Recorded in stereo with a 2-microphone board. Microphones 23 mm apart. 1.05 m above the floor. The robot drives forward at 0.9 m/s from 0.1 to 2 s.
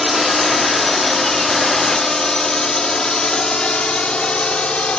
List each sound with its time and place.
0.0 s a drone: 5° right (ahead or behind); by 5.0 s 50° left (ahead or behind)